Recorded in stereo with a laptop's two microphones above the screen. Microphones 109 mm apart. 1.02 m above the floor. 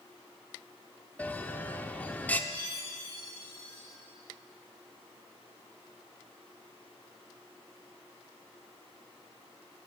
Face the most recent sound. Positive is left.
turn(degrees=55)  # may be behind; listen again after turning